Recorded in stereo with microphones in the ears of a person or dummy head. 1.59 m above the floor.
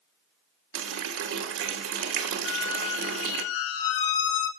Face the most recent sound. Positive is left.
turn(degrees=60)  # may be behind; listen again after turning